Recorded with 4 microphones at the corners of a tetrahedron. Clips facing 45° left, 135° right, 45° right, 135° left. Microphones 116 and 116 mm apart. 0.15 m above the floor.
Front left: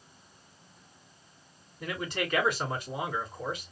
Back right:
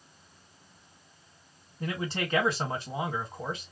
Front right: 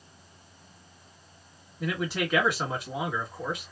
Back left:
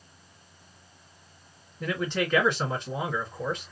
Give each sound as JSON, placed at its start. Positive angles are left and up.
{"t": 1.8, "sound": "a man speaking", "azimuth_deg": -120, "distance_m": 1.7}